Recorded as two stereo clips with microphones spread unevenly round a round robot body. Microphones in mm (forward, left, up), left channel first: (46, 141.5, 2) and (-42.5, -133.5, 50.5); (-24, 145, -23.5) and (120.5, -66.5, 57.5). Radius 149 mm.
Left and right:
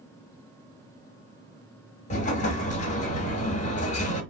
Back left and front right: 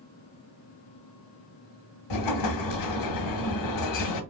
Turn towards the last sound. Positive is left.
turn(degrees=140)